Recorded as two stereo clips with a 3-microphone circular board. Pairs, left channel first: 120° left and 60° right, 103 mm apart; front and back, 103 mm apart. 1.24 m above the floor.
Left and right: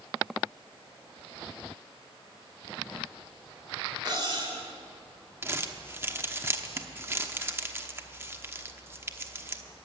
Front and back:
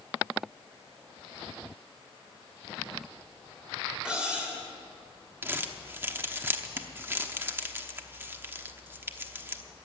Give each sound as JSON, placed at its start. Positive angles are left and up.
{"t": 4.0, "sound": "cutlery clinking", "azimuth_deg": -100, "distance_m": 3.0}
{"t": 5.4, "sound": "crumpling", "azimuth_deg": -115, "distance_m": 1.0}